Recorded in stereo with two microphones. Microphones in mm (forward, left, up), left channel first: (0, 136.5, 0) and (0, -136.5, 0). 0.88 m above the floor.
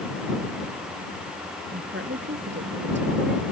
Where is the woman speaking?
40° right (ahead or behind).